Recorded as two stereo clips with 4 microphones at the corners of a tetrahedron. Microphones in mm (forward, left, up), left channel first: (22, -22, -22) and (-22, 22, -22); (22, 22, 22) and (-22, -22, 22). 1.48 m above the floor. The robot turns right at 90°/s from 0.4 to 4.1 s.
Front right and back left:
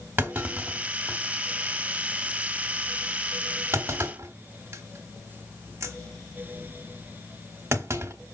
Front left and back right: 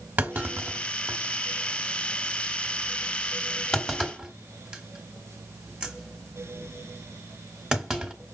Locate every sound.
0.2 s a clunk: 175° left, 1.3 m; by 8.1 s 150° left, 1.3 m